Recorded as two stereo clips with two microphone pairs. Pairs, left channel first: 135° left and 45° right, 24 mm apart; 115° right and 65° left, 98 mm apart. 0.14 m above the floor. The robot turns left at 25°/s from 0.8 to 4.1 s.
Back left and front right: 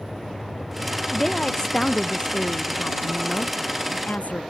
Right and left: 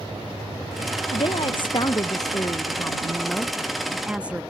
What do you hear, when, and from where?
1.1 s a woman speaking: 140° right; by 4.4 s 145° left